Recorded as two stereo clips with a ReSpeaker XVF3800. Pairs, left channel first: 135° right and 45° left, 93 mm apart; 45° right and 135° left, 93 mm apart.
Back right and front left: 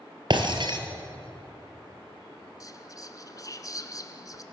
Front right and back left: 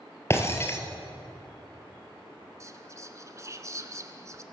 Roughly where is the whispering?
Behind.